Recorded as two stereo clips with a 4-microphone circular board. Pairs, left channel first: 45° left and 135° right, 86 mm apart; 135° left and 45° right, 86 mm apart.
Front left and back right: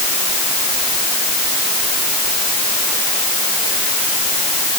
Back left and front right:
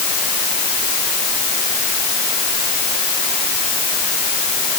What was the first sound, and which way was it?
Only background noise.